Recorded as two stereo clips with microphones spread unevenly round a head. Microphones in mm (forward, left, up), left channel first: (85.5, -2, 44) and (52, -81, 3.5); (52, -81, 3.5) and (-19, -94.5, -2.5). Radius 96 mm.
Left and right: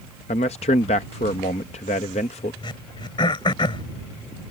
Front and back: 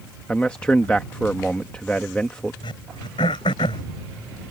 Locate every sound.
0.3 s a man speaking: 95° left
2.6 s throat clearing: 50° left